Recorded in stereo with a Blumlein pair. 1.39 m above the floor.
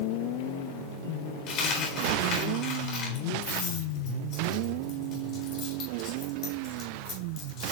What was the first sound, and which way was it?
A dropped coin, 35° left.